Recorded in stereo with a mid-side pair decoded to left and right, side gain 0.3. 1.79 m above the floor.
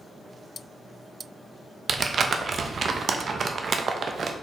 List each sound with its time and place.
1.9 s crumpling: 60° right, 0.6 m